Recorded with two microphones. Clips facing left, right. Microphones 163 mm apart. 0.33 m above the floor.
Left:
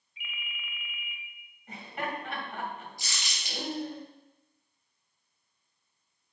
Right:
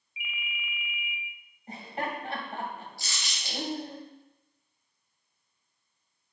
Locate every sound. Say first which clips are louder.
0.2 s a ringtone: right 4 dB; 5° right (ahead or behind), 0.8 m
1.7 s laughter: right 2 dB; 30° right (ahead or behind), 1.8 m
3.0 s crumpling: right 1 dB; 15° left (ahead or behind), 3.5 m